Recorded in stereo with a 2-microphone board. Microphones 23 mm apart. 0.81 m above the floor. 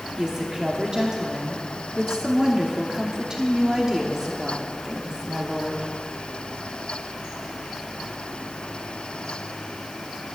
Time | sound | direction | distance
0.2 | a woman speaking | 35° right (ahead or behind) | 1.3 m